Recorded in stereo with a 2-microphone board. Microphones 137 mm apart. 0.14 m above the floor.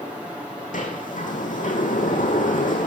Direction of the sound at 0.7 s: 75° left (ahead or behind).